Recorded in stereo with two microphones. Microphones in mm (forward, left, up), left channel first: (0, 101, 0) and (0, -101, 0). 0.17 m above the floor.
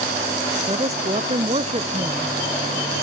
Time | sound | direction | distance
0.7 | a woman speaking | 30° right (ahead or behind) | ?